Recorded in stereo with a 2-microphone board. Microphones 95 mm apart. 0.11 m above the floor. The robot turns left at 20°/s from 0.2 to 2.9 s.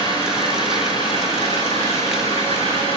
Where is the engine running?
135° left, 9 m; by 3.0 s 80° left, 9 m.